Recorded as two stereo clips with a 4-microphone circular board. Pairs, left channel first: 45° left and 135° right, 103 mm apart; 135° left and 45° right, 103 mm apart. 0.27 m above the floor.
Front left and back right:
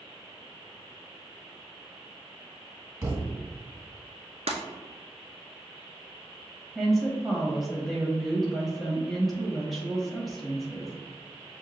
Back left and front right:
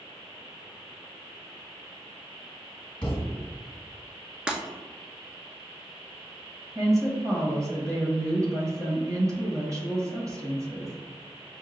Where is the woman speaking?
45° right, 1.2 m.